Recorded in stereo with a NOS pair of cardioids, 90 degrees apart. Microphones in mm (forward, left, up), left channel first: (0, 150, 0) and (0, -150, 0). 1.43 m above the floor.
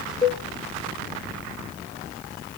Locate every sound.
0.2 s a cowbell: 15° left, 1.9 m